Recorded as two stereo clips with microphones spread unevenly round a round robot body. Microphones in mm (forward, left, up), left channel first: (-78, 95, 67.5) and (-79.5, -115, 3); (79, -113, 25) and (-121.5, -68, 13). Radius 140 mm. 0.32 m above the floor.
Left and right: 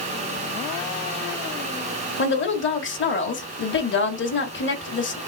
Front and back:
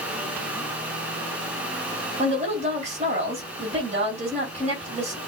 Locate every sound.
2.2 s a woman speaking: 120° left, 1.5 m